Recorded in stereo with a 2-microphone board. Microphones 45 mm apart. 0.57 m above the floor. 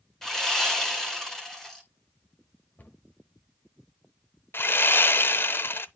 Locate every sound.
0.2 s sawing: 10° left (ahead or behind), 1.9 m
2.8 s a cupboard door: 40° left (ahead or behind), 1.5 m
4.5 s sawing: 50° left (ahead or behind), 0.6 m